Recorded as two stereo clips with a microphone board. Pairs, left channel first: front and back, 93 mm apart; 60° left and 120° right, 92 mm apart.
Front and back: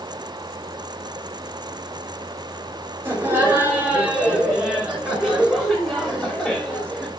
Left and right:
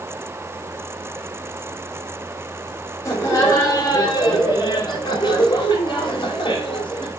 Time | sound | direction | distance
3.0 | laughter | 115° left | 3.5 m